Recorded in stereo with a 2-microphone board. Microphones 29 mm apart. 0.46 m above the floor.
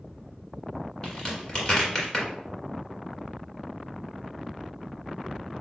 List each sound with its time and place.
1.0 s a crack: 25° left (ahead or behind), 1.6 m